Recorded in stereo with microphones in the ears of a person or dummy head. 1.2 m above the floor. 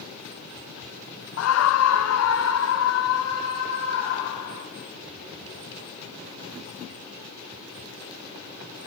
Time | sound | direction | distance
1.4 | a scream | 70° left (ahead or behind) | 0.6 m